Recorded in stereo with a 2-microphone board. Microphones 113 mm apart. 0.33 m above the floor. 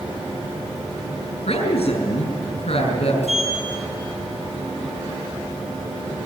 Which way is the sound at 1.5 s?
65° left (ahead or behind).